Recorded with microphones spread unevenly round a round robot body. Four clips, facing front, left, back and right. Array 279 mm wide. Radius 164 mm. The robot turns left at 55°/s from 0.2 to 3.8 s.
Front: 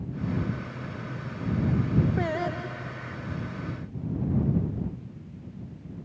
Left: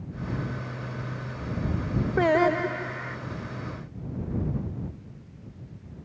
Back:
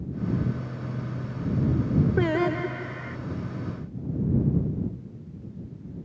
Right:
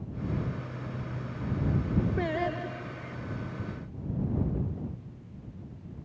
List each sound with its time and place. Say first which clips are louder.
2.2 s singing: left 9 dB, back 5 dB; 160° left; by 3.2 s 105° left